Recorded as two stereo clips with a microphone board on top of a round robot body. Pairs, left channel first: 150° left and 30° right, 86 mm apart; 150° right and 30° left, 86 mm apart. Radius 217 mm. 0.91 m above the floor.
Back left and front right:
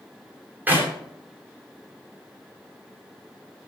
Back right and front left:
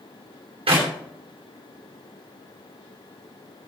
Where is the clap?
40° left, 3.5 m.